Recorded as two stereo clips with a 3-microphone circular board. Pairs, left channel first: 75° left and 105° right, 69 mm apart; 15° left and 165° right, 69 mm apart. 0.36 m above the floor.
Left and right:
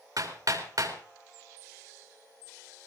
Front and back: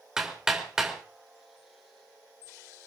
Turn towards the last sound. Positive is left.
turn(degrees=-85)